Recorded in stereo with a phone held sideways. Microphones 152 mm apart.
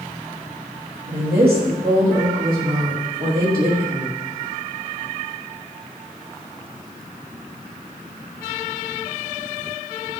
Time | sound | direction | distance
1.1 | a woman speaking | 85° right | 2.5 m